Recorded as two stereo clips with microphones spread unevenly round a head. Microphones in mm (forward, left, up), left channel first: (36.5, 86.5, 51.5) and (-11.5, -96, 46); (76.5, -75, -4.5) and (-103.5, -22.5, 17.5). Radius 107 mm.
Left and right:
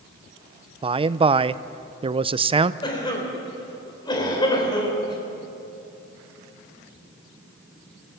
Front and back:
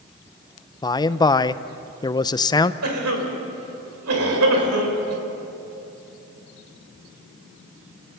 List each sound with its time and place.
0.8 s a man speaking: 65° right, 0.5 m
2.8 s a cough: 145° left, 4 m